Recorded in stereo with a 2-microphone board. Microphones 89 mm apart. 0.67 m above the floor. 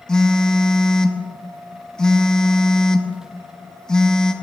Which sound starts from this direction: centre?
A phone buzzing, at 0.1 s.